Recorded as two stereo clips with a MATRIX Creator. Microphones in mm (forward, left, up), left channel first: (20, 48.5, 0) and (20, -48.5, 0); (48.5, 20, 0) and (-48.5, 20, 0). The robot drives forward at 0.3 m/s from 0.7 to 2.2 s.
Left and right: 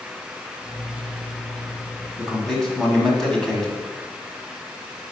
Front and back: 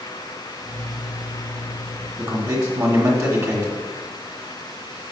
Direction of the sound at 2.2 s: 165° left.